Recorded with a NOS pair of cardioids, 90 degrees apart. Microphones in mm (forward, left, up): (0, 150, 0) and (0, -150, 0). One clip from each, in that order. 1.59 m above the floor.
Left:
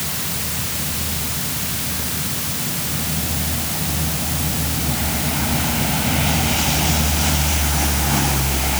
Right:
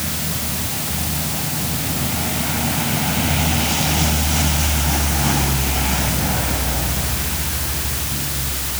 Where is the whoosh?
No whoosh in this recording.